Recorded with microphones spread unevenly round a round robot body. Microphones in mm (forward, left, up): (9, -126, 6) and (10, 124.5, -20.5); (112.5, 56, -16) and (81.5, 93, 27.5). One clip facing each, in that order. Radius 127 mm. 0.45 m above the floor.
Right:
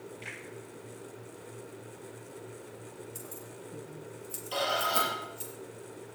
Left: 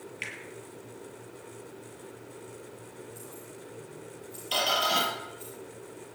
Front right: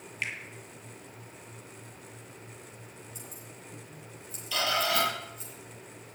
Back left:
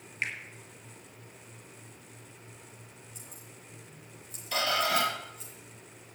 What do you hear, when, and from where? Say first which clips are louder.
0.2 s a finger snap: left 1 dB, back left 1 dB; 95° left, 7 m
3.1 s keys jangling: even, front right 4 dB; 70° right, 6 m
4.5 s a squeak: left 1 dB, even; 125° left, 5.5 m